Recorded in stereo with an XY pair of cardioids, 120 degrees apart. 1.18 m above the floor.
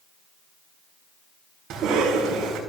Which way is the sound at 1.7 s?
65° right.